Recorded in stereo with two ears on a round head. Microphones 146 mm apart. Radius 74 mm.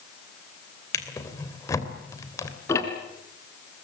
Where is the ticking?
15° left (ahead or behind), 2.5 m.